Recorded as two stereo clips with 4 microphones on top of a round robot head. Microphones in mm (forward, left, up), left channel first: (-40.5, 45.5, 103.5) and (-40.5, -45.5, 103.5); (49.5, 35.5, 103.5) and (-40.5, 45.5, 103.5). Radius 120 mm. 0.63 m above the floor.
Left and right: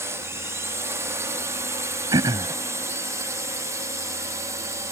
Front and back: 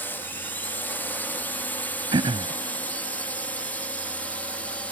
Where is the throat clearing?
140° right.